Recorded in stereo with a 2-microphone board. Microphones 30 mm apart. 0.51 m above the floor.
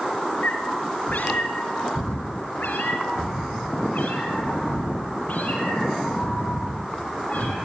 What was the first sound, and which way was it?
A cat meowing, 60° left (ahead or behind).